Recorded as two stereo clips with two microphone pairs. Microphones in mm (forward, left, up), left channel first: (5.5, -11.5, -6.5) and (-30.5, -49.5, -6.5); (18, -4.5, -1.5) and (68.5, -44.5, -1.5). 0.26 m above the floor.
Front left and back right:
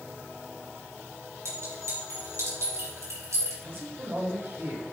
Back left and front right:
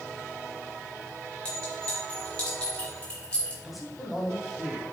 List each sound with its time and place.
1.4 s a clink: 150° right, 3.5 m
3.6 s a man speaking: 125° right, 2.0 m